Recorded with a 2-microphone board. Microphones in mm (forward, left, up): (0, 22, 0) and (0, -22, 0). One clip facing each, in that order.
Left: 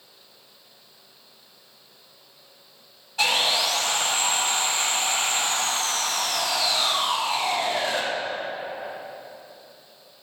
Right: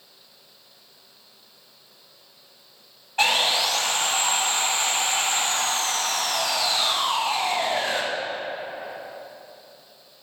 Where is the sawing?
40° right (ahead or behind), 1.8 m.